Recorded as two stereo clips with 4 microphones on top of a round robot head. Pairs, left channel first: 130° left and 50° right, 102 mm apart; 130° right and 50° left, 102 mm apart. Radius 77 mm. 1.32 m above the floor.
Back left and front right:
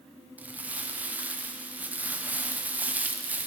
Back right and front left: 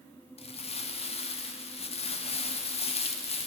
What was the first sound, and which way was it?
Crumpling, 125° right.